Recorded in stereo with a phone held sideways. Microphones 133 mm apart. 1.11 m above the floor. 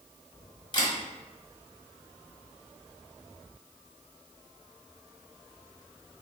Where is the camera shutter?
35° left (ahead or behind), 1.0 m.